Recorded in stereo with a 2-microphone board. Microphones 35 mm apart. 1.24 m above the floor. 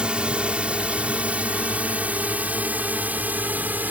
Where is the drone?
30° right (ahead or behind); by 3.9 s 55° right (ahead or behind).